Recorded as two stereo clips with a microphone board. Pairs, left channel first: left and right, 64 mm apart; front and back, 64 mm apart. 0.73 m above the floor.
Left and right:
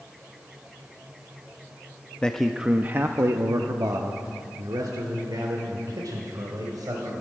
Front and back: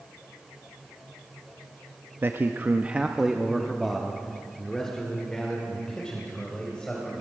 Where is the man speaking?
155° left, 0.6 m; by 7.2 s 75° right, 3.5 m.